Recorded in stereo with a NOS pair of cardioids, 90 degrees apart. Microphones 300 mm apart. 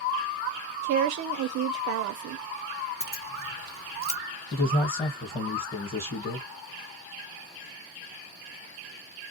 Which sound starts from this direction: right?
A woman speaking, at 0.8 s.